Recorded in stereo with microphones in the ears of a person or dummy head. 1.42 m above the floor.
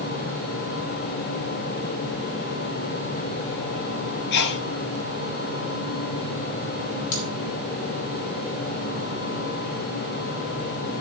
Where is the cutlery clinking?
80° left, 3.5 m.